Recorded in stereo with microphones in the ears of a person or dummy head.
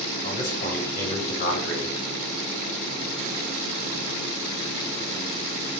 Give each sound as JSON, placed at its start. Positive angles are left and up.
{"t": 0.2, "sound": "a man speaking", "side_deg": 50, "distance_m": 4.5}